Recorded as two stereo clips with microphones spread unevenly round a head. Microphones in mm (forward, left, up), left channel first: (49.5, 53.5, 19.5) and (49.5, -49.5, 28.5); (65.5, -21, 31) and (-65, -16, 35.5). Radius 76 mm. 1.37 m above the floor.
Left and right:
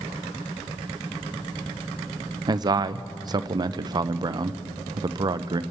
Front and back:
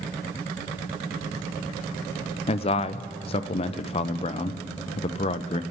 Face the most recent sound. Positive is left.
turn(degrees=-45)